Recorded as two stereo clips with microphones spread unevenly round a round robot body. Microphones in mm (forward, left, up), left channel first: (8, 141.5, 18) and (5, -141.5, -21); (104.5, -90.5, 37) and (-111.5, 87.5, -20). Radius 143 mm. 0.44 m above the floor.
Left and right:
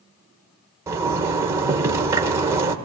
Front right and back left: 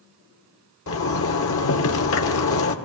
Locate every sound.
0.9 s a zipper: 25° right, 1.5 m